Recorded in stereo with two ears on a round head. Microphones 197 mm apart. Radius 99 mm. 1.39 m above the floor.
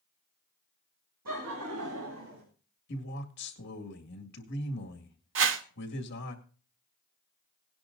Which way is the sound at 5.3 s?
60° right (ahead or behind).